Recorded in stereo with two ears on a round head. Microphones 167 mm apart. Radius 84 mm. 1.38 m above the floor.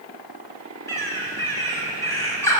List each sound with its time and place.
0.9 s a bird: 15° left (ahead or behind), 7 m